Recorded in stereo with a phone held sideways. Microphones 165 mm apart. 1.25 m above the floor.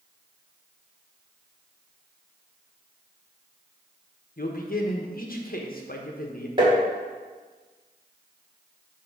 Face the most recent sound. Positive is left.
turn(degrees=-30)  # may be behind; listen again after turning